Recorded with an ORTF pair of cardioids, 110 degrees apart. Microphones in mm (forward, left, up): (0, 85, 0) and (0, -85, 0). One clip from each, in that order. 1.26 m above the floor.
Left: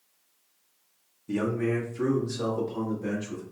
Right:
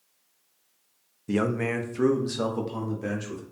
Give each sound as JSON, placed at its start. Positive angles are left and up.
{"t": 1.3, "sound": "a man speaking", "azimuth_deg": -35, "distance_m": 0.6}